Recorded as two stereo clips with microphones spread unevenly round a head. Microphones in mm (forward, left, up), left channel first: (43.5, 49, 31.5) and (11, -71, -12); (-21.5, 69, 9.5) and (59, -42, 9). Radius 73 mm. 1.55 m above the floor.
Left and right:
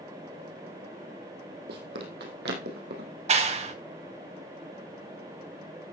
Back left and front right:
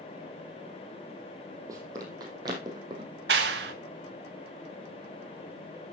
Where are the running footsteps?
120° right, 3 m; by 3.1 s 115° right, 4 m.